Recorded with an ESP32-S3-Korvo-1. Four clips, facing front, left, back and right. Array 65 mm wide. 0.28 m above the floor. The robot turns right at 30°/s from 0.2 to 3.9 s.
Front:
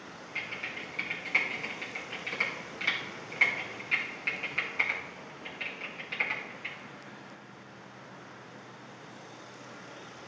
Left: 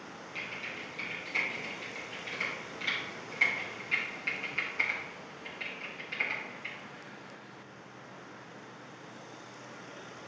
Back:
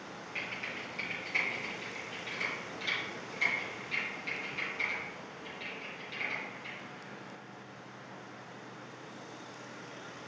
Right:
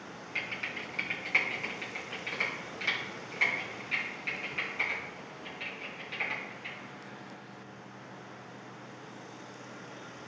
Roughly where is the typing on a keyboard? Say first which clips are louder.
Right 4 dB, front 2 dB; right.